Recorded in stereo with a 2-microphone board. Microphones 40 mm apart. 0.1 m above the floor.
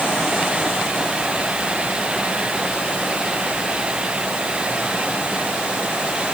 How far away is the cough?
No cough in this recording.